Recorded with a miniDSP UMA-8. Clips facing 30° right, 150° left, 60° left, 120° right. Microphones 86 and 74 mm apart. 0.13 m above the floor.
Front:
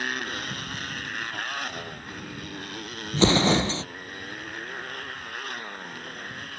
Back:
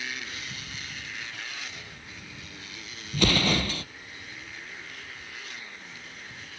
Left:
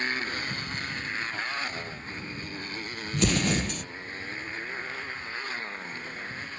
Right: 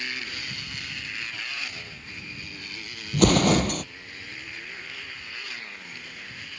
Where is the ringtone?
I don't hear a ringtone.